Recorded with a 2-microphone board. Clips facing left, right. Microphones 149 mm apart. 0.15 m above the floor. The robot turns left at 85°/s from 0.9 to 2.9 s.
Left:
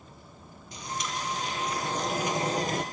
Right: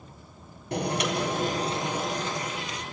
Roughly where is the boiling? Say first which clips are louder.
Right 9 dB; right.